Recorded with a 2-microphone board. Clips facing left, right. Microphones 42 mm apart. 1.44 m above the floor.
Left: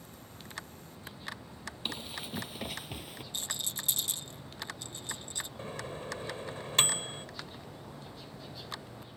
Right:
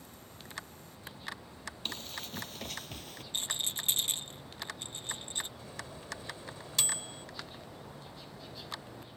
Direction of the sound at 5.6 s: 40° left (ahead or behind).